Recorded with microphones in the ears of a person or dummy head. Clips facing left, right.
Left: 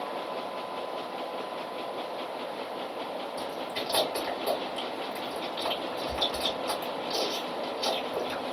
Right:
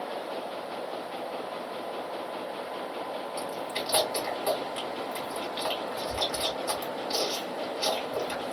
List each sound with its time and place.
3.4 s chewing: 50° right (ahead or behind), 2.5 m